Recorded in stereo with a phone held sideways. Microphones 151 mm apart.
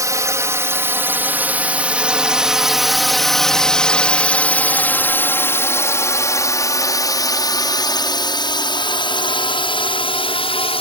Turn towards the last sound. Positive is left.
turn(degrees=40)  # may be behind; listen again after turning